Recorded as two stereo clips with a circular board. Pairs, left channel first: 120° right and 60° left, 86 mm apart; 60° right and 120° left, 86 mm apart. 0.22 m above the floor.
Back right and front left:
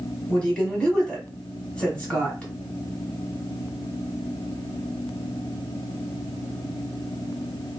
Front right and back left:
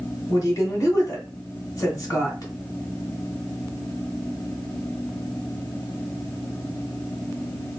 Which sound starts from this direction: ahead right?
A woman speaking, at 0.3 s.